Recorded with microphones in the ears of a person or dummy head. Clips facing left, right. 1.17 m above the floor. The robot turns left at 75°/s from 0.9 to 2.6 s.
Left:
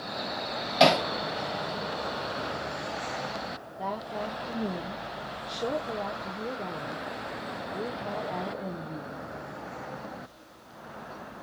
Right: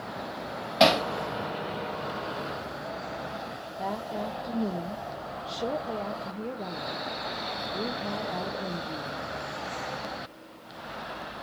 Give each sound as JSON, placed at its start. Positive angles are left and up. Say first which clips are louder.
{"t": 0.8, "sound": "hammering", "louder": "even", "side_deg": 0, "distance_m": 2.0}
{"t": 3.8, "sound": "a woman speaking", "louder": "right 1 dB", "side_deg": -5, "distance_m": 0.6}